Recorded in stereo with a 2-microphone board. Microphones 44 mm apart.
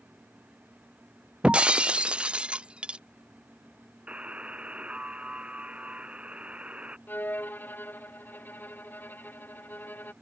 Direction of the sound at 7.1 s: 45° left (ahead or behind).